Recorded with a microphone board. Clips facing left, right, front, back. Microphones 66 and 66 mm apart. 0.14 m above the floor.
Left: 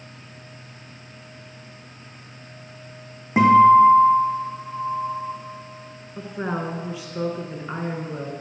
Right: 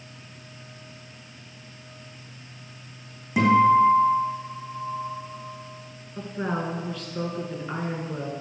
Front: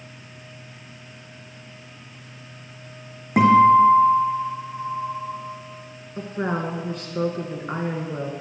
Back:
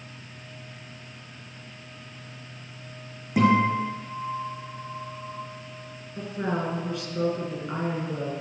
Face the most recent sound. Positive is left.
turn(degrees=15)